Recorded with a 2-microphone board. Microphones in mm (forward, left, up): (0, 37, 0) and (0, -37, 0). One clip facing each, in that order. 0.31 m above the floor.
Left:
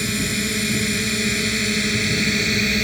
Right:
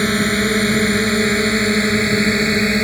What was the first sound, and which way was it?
A drone, 50° right (ahead or behind).